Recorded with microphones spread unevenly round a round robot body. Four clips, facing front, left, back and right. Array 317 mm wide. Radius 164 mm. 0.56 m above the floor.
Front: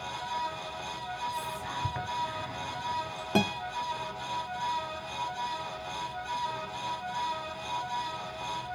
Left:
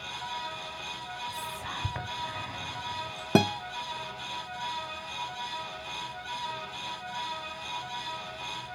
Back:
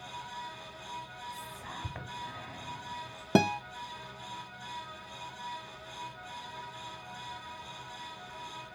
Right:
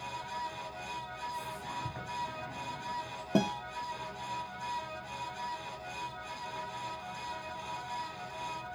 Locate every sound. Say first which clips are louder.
1.3 s whispering: left 2 dB, front 8 dB; 80° left, 2 m
3.4 s a guitar: left 6 dB, back 3 dB; 105° left, 0.5 m